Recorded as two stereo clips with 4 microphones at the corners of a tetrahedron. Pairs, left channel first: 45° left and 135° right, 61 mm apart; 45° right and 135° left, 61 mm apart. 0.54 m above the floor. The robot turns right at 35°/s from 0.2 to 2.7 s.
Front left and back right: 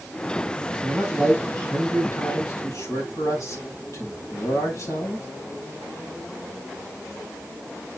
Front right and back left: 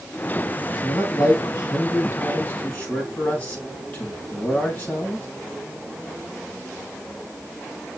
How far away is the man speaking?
About 4.5 m.